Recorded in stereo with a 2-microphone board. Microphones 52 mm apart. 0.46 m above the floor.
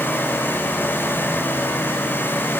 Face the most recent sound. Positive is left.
No sound to turn to.